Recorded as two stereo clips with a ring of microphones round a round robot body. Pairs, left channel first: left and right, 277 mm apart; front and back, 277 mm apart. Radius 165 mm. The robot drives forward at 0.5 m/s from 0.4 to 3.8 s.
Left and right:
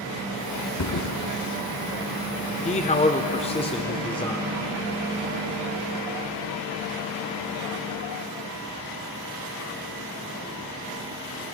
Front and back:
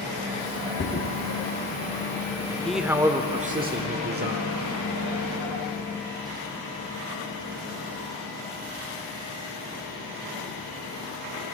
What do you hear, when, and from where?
0.8 s a thud: 65° left, 1.7 m; by 1.1 s 70° left, 1.6 m
2.6 s a man speaking: 85° left, 0.8 m; by 4.5 s 150° left, 1.0 m